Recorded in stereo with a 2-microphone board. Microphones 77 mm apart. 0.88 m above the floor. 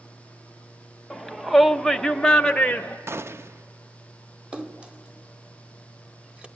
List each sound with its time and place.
1.1 s a shout: centre (ahead or behind), 1.0 m; by 3.0 s 10° left (ahead or behind), 0.8 m
3.1 s a gunshot: 35° right (ahead or behind), 0.5 m
4.5 s a splash: 15° right (ahead or behind), 0.9 m